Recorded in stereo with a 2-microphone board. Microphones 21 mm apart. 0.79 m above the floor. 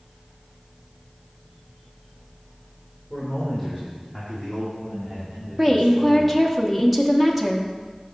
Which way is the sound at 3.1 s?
5° left (ahead or behind).